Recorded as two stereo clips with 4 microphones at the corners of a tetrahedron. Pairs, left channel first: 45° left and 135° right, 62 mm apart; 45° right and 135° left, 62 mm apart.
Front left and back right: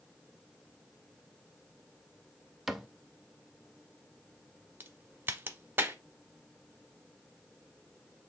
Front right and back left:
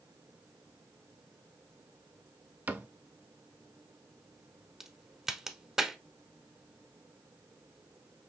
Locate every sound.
2.7 s a cupboard door: 140° left, 0.6 m
4.8 s a crack: 150° right, 0.7 m